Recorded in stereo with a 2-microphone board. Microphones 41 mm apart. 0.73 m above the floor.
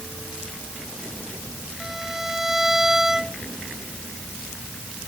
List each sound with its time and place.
1.8 s a violin: 10° right (ahead or behind)